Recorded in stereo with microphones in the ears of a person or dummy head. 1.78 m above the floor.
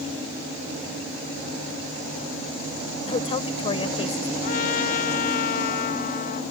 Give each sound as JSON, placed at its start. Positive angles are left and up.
{"t": 3.1, "sound": "a woman speaking", "side_deg": 35}
{"t": 4.4, "sound": "a trumpet", "side_deg": 45}